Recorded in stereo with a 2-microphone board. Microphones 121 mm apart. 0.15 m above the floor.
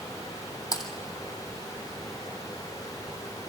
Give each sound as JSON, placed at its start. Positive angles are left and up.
{"t": 0.7, "sound": "typing on a keyboard", "side_deg": 30, "distance_m": 2.0}